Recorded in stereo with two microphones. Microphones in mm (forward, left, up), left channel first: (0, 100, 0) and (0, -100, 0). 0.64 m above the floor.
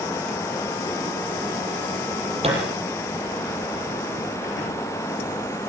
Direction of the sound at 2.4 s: 30° right (ahead or behind).